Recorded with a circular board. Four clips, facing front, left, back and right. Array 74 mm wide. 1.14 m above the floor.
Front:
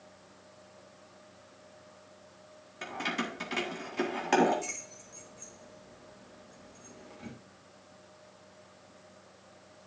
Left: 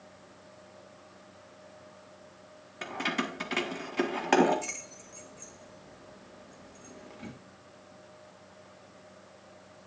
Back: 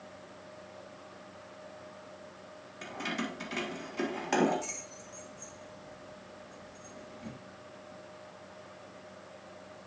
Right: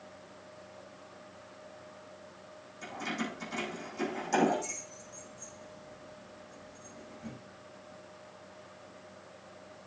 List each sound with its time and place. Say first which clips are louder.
2.8 s keys jangling: left 4 dB, front 2 dB; 75° left, 1.7 m